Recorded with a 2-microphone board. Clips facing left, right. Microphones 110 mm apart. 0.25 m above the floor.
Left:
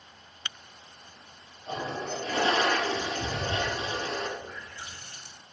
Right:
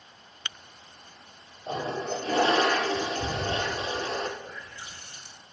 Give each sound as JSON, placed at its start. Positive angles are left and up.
{"t": 1.7, "sound": "a toilet flushing", "side_deg": -40, "distance_m": 1.7}
{"t": 4.4, "sound": "a running tap", "side_deg": 65, "distance_m": 3.0}